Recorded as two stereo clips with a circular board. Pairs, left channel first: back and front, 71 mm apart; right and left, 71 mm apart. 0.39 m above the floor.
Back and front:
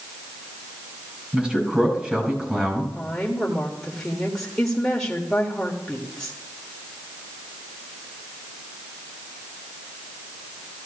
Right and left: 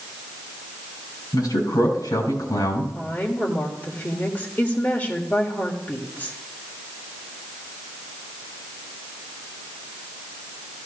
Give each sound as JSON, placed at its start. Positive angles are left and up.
{"t": 1.3, "sound": "a man speaking", "azimuth_deg": -70, "distance_m": 4.0}
{"t": 3.0, "sound": "a woman speaking", "azimuth_deg": -110, "distance_m": 1.4}